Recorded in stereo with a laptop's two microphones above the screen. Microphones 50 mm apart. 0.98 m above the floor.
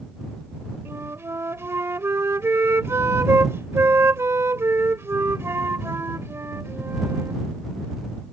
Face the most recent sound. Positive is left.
turn(degrees=-60)  # may be behind; listen again after turning